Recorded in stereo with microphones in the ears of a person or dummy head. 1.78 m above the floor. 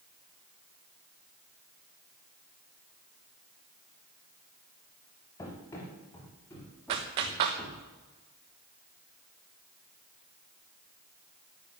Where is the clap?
25° right (ahead or behind), 1.0 m.